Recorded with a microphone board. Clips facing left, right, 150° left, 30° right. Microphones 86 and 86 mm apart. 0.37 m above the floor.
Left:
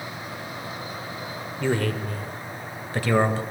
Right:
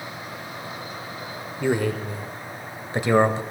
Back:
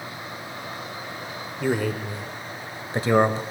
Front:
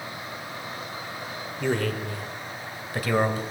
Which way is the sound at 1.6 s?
140° right.